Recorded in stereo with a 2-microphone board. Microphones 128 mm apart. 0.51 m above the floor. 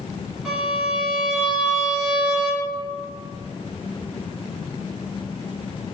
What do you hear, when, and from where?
0.5 s a violin: 5° right (ahead or behind), 1.8 m